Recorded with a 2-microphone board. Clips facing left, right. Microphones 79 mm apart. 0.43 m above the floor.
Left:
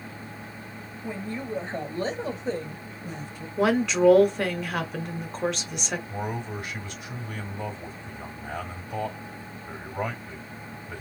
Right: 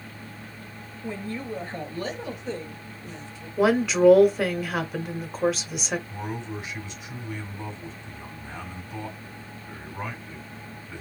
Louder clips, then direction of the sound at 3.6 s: Right 2 dB; 5° right (ahead or behind).